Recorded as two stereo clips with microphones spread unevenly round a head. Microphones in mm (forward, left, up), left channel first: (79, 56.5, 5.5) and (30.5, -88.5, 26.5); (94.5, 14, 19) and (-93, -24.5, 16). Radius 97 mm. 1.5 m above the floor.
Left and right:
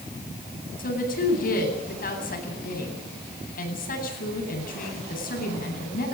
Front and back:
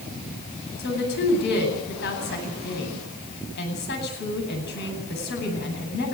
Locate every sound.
0.8 s a woman speaking: 45° left, 9 m